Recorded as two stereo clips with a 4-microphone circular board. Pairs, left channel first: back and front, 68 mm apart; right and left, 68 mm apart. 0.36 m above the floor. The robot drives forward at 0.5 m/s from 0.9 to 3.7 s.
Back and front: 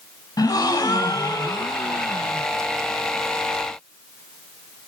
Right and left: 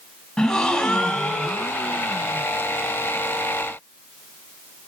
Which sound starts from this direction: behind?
A gasp, at 0.4 s.